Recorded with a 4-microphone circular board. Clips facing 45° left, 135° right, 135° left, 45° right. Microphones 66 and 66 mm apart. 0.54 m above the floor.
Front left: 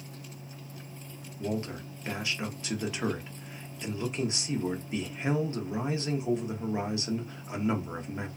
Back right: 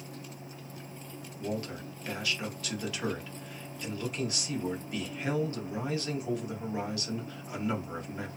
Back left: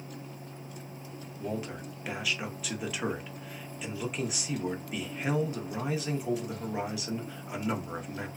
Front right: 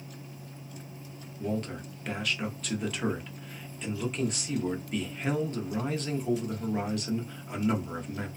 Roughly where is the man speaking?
Ahead left.